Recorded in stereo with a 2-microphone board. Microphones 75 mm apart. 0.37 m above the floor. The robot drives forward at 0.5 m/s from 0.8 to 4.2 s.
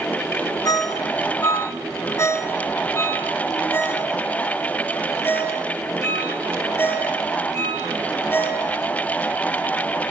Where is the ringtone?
55° left (ahead or behind), 1.5 m; by 8.7 s 25° left (ahead or behind), 3 m.